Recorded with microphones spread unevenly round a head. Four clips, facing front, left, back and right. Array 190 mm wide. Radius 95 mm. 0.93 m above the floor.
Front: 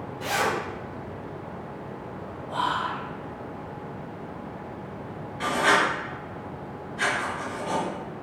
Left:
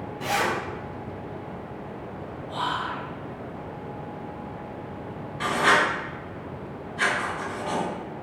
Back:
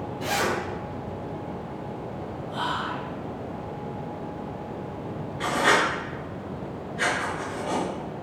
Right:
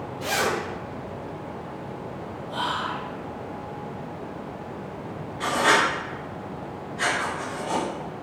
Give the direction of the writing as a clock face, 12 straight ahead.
9 o'clock.